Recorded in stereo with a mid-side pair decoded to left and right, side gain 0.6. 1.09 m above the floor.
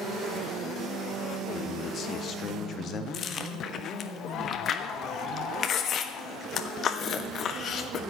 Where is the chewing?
45° left, 1.3 m.